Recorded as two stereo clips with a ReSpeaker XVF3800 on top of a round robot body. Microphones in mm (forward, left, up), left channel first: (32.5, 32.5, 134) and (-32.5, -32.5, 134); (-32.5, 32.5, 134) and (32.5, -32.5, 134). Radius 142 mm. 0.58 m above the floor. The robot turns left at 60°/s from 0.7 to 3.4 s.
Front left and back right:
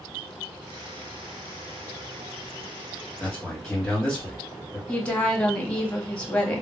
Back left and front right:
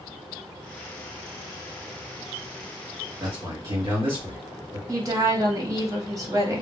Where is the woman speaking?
25° right, 1.3 m.